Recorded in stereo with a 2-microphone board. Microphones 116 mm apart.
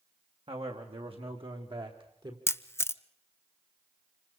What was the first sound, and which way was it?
A man speaking, 60° right (ahead or behind).